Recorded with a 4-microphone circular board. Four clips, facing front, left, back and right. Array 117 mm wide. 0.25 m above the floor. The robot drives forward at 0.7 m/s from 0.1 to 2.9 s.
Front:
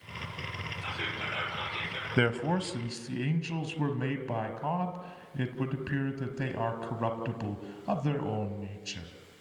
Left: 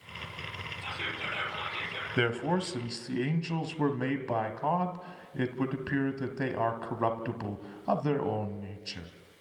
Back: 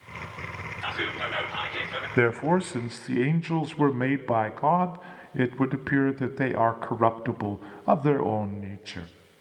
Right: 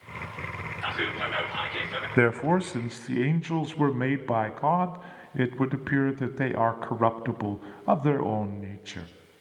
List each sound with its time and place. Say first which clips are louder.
0.8 s whispering: right 8 dB, back 7 dB; 110° right, 4.5 m; by 2.1 s 120° right, 5 m
2.2 s a man speaking: right 6 dB, back 6 dB; 120° right, 1.0 m; by 9.1 s 150° right, 1.3 m